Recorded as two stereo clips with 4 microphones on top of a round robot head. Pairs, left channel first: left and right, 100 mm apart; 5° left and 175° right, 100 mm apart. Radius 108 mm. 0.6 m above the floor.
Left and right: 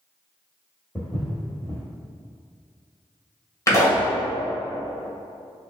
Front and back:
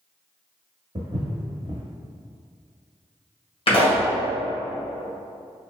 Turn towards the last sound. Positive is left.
turn(degrees=30)